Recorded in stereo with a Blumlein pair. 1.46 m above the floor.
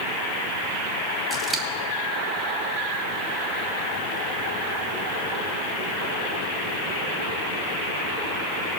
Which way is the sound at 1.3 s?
15° right.